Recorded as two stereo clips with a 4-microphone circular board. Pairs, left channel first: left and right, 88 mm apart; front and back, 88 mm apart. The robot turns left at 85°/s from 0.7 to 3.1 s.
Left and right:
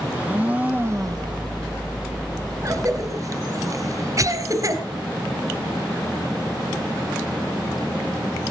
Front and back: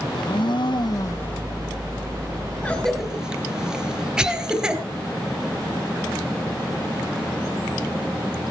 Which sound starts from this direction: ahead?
A blender, at 0.1 s.